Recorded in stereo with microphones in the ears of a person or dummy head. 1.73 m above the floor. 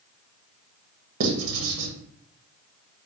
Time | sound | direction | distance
1.2 | writing | 75° right (ahead or behind) | 0.9 m